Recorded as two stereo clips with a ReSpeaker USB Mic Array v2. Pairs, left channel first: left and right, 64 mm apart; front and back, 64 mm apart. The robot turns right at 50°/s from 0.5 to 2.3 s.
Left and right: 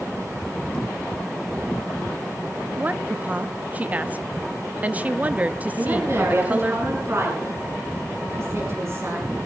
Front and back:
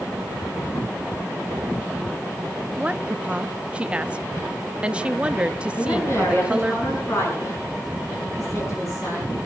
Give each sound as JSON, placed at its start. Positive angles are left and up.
{"t": 2.8, "sound": "a woman speaking", "azimuth_deg": -125, "distance_m": 0.7}
{"t": 5.8, "sound": "a woman speaking", "azimuth_deg": -45, "distance_m": 8.5}